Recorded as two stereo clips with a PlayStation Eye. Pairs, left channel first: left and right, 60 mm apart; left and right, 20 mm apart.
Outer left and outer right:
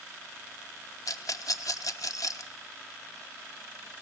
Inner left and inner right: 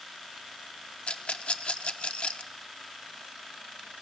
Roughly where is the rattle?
Left.